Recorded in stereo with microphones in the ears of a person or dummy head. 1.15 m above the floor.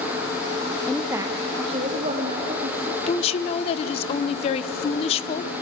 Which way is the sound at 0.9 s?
10° left (ahead or behind).